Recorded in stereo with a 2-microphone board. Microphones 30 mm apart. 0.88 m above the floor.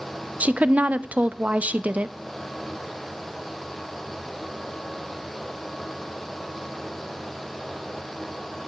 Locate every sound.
0.4 s a woman speaking: 55° right (ahead or behind), 0.6 m